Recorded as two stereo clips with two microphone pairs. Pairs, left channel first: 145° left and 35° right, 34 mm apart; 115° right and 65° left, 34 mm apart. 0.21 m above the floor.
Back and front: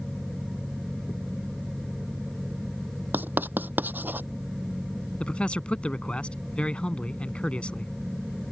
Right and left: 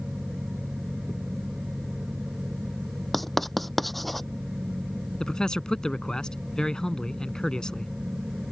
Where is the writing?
25° right.